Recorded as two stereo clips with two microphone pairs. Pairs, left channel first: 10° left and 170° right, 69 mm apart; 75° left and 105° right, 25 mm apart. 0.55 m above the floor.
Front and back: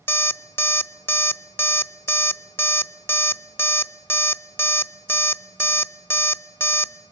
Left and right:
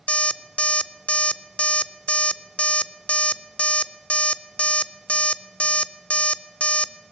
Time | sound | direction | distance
0.1 | an alarm clock | 65° left | 0.5 m